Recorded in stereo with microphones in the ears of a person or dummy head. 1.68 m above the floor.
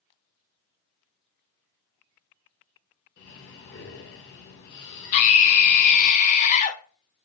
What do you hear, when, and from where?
3.2 s breathing: 60° left (ahead or behind), 1.5 m
5.1 s a scream: 40° left (ahead or behind), 0.9 m